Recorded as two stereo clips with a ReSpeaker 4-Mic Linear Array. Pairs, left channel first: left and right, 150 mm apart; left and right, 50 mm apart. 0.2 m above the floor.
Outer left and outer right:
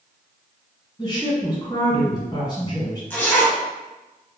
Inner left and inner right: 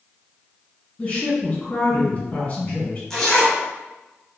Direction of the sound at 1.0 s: 30° left (ahead or behind).